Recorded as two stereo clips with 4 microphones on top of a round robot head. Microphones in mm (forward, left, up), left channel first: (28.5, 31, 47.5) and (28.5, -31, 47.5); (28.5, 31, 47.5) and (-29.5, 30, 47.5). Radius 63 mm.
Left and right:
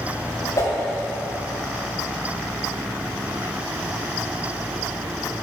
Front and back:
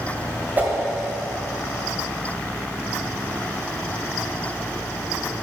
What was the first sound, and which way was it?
A whoosh, 130° left.